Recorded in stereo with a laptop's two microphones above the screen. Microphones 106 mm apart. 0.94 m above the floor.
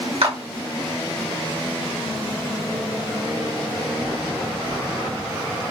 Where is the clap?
70° right (ahead or behind), 1.6 m.